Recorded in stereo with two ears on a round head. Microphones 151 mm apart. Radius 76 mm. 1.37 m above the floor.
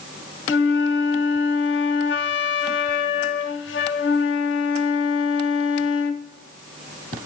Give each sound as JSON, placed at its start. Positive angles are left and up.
{"t": 0.5, "sound": "a flute", "side_deg": 80, "distance_m": 0.6}